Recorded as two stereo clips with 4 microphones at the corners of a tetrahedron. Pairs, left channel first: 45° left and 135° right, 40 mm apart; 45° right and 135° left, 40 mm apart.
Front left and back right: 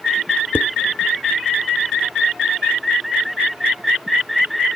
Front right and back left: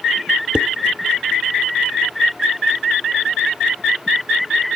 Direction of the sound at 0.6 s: 70° left.